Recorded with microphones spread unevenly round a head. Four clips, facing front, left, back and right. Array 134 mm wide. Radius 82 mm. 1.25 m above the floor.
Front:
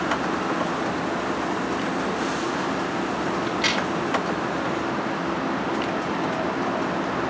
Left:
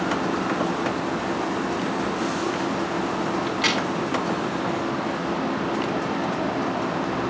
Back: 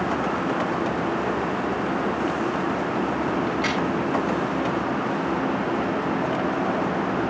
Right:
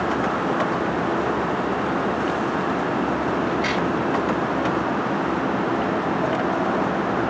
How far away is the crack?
About 4 m.